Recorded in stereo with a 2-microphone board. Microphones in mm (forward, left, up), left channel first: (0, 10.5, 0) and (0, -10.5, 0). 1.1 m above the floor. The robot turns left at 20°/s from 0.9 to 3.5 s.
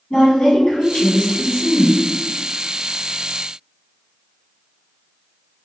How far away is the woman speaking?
About 1.5 m.